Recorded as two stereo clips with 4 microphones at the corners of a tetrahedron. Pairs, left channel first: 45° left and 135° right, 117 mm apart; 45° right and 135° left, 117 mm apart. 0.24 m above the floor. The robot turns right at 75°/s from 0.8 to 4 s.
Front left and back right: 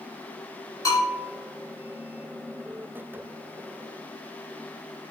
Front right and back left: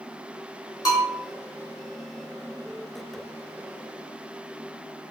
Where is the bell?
5° right, 1.2 m; by 1.1 s 20° left, 1.2 m.